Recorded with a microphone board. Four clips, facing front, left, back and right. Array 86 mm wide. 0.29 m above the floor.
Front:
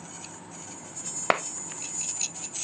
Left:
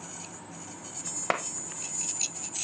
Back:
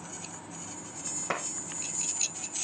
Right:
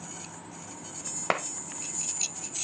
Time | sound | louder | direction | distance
1.3 | a clap | right 1 dB, front 8 dB | 5° right | 1.0 m